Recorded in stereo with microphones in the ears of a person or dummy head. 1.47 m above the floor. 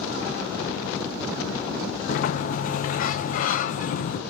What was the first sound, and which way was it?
A sliding door, 50° left (ahead or behind).